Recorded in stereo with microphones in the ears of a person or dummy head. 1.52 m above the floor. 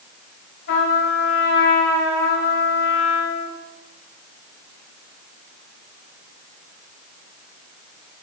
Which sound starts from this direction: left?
A trumpet, at 0.7 s.